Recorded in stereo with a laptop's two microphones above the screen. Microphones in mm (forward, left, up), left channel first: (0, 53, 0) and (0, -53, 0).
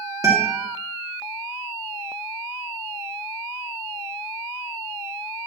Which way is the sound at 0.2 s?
30° right (ahead or behind).